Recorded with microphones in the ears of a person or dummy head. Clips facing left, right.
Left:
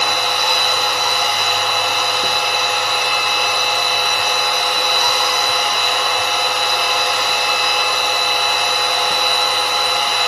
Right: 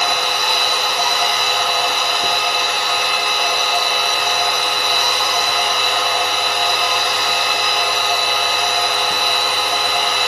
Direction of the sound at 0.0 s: 20° right (ahead or behind).